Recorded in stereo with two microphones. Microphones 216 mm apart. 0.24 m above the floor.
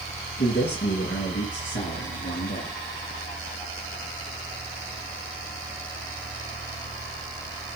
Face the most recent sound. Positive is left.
turn(degrees=65)  # may be behind; listen again after turning